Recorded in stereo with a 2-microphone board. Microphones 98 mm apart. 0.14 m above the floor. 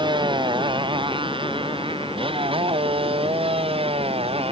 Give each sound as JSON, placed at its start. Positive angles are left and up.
{"t": 0.0, "sound": "a motorcycle", "side_deg": -55}